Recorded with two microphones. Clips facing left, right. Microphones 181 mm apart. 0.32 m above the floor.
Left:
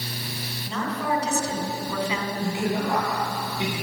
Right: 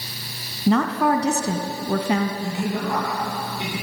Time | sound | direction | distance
0.7 | a woman speaking | 65° right (ahead or behind) | 2 m
2.4 | a man speaking | 20° left (ahead or behind) | 7 m